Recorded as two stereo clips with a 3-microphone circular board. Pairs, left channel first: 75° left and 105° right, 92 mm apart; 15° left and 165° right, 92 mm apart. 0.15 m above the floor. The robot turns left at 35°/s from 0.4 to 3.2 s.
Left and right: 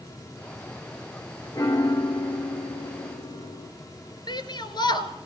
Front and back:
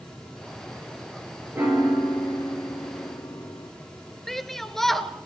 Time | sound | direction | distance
1.6 | a piano | 125° left | 5.5 m
4.3 | a shout | 105° left | 2 m